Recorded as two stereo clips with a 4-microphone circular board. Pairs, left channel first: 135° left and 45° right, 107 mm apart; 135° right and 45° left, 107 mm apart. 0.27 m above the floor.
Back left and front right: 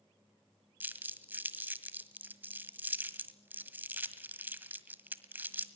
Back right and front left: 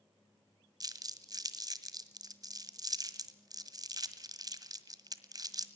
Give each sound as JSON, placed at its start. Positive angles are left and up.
{"t": 0.8, "sound": "crumpling", "azimuth_deg": 20, "distance_m": 1.6}